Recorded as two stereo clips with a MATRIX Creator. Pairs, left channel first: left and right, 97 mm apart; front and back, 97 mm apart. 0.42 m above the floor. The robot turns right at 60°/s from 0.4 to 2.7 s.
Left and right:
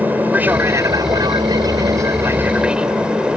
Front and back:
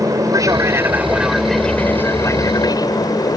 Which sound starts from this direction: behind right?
An aircraft, at 0.0 s.